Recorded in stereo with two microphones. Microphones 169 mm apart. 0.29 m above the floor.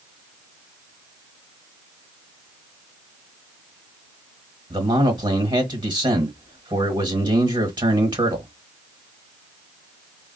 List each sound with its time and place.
4.7 s a man speaking: 25° right (ahead or behind), 1.1 m